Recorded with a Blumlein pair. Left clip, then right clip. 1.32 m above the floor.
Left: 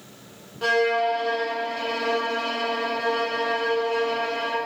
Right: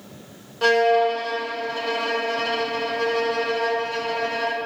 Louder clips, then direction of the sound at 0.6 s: Right 4 dB; 25° right.